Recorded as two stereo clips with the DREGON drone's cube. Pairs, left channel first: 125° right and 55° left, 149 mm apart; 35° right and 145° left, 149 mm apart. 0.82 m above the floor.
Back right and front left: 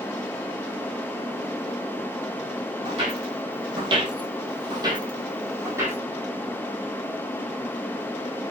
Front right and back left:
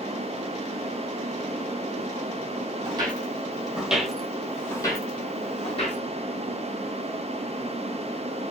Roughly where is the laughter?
No laughter in this recording.